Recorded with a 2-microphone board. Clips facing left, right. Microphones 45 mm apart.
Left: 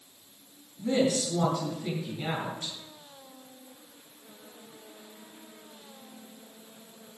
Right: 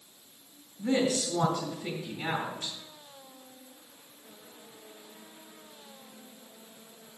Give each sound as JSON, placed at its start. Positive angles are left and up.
{"t": 0.8, "sound": "a woman speaking", "side_deg": -10, "distance_m": 3.5}